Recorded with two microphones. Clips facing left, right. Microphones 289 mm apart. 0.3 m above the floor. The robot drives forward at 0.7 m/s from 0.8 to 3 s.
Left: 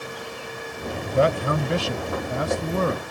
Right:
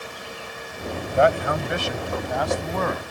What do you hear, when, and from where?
1.1 s a man speaking: 40° left (ahead or behind); by 3.0 s 30° left (ahead or behind)